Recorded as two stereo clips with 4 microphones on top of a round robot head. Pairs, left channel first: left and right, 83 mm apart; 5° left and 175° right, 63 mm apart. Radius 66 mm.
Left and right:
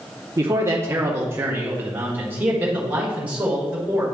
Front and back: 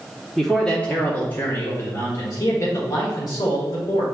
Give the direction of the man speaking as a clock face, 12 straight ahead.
3 o'clock.